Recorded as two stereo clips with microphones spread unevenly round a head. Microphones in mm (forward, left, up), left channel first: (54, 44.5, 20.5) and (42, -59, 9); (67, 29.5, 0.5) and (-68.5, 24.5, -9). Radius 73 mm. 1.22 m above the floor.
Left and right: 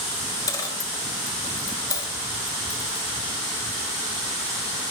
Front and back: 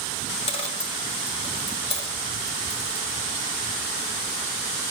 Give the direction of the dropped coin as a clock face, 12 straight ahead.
11 o'clock.